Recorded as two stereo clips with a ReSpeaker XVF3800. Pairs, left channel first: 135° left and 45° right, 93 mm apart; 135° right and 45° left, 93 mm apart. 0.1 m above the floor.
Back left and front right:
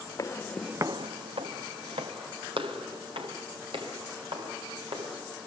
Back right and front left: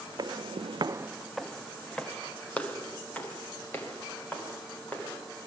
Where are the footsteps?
85° left, 0.9 m; by 5.2 s 65° right, 6.5 m.